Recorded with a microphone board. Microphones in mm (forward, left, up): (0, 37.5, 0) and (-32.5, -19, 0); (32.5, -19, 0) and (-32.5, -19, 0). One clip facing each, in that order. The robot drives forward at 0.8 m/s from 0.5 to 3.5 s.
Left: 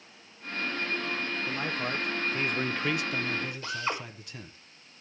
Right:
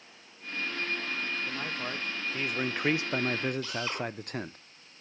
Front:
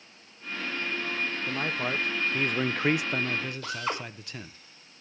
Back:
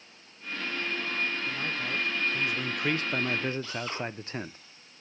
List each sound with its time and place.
1.5 s a man speaking: 15° right, 1.4 m; by 4.6 s 130° right, 0.5 m
3.6 s a drill: straight ahead, 5 m